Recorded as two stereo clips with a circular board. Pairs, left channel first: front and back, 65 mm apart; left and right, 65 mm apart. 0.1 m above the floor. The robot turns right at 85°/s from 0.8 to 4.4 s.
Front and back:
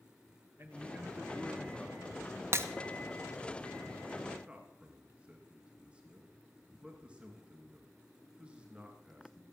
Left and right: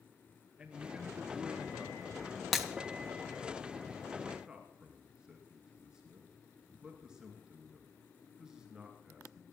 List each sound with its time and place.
0.6 s a man speaking: 155° right, 1.3 m; by 2.2 s 35° right, 1.3 m
2.5 s breaking glass: straight behind, 1.0 m; by 2.7 s 165° right, 1.0 m
4.5 s a man speaking: 150° right, 1.8 m